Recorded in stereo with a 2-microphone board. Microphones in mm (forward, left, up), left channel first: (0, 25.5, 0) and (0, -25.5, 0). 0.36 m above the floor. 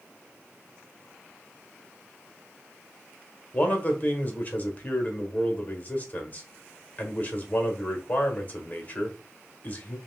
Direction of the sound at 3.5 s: 30° left (ahead or behind).